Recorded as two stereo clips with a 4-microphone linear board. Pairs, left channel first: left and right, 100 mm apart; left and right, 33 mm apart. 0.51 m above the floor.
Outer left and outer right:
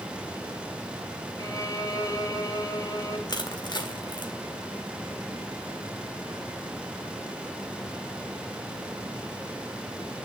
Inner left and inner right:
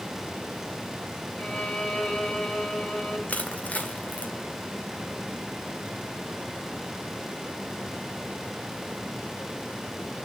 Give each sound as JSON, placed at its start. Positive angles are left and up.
{"t": 1.4, "sound": "a violin", "side_deg": 40, "distance_m": 2.5}
{"t": 3.3, "sound": "crushing", "side_deg": 45, "distance_m": 1.8}